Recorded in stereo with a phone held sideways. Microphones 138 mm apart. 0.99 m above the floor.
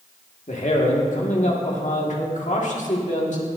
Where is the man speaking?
60° left (ahead or behind), 1.7 m.